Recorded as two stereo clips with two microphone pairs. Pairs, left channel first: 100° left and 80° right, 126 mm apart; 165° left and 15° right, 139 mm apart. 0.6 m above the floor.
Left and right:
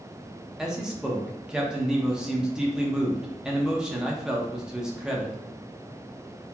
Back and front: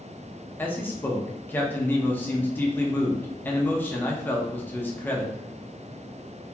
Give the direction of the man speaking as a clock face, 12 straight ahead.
5 o'clock.